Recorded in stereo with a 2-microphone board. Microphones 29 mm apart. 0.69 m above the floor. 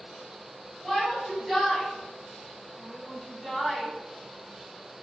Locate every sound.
0.8 s a shout: 20° left (ahead or behind), 3.5 m; by 3.9 s centre (ahead or behind), 5 m